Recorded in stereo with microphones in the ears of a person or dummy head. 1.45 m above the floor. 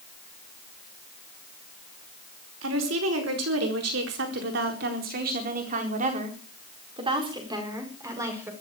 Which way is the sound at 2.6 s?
85° right.